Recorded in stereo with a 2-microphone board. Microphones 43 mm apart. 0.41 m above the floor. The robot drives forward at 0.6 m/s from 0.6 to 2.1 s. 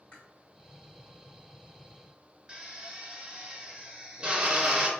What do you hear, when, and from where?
0.1 s chewing: 30° left (ahead or behind), 1.8 m
2.5 s a drill: 20° right (ahead or behind), 0.6 m